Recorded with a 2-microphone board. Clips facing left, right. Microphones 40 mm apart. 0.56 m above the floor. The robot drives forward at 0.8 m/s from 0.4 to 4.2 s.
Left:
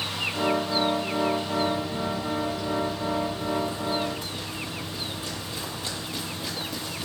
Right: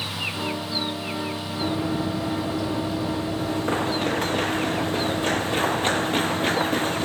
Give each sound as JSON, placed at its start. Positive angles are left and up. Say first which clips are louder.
{"t": 1.6, "sound": "running footsteps", "louder": "right 2 dB", "side_deg": -55}